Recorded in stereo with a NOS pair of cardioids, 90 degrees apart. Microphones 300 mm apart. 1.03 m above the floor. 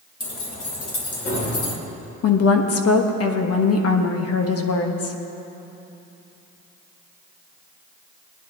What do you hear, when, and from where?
0.2 s keys jangling: 45° left, 3.5 m; by 1.7 s 50° left, 2.5 m
2.2 s a woman speaking: 55° left, 1.3 m